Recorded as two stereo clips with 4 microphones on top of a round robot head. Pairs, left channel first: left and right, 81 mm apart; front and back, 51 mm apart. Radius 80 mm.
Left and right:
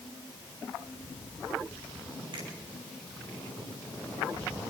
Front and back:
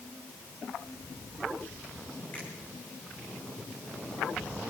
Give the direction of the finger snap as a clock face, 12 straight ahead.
2 o'clock.